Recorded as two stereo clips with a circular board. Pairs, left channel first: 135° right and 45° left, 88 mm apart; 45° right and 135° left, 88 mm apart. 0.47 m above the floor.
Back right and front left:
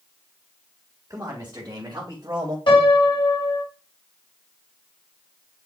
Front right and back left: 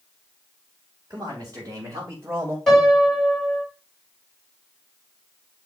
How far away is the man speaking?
About 3 m.